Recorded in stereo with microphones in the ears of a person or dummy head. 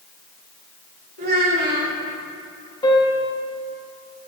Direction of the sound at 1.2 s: 55° right (ahead or behind).